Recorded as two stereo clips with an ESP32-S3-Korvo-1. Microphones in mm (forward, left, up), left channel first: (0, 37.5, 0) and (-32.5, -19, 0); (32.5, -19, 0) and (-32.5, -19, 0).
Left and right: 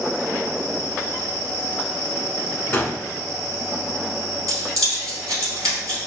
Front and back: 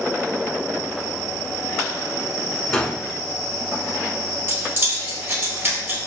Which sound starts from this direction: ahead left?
A gunshot, at 2.7 s.